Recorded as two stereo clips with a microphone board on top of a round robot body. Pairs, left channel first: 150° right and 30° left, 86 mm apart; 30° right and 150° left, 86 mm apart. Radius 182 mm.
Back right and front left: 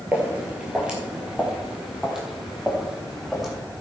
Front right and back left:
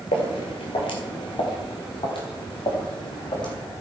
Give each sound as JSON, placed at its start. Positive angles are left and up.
{"t": 0.1, "sound": "footsteps", "azimuth_deg": -45, "distance_m": 1.3}